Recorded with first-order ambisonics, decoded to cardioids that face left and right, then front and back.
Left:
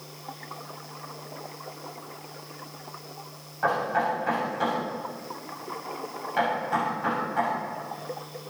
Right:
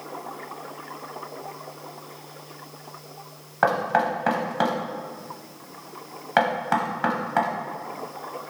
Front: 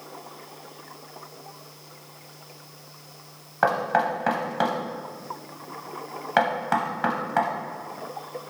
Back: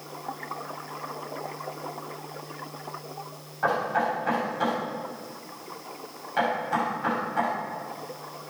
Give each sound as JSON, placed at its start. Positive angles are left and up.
{"t": 3.6, "sound": "knocking", "azimuth_deg": -45, "distance_m": 0.8}